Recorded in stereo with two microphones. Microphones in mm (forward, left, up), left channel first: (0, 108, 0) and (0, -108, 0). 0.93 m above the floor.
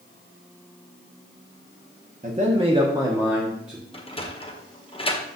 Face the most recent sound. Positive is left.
turn(degrees=25)  # may be behind; listen again after turning